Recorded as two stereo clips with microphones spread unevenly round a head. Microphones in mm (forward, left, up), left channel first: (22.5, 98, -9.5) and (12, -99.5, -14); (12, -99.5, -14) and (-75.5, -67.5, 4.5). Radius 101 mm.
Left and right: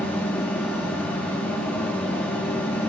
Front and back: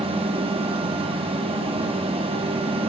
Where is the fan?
170° left, 0.8 m.